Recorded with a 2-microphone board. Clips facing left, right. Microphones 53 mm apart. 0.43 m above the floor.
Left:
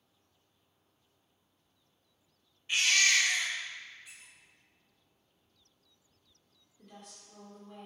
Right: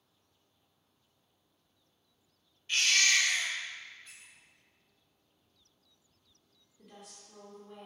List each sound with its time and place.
2.7 s a baby crying: 15° left (ahead or behind), 0.6 m
4.0 s a squeak: 10° left (ahead or behind), 0.6 m
6.8 s a woman speaking: 5° right (ahead or behind), 1.0 m